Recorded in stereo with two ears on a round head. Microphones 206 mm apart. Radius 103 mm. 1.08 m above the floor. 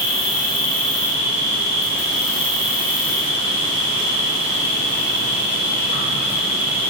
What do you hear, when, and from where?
0.0 s an insect: 40° right (ahead or behind), 2 m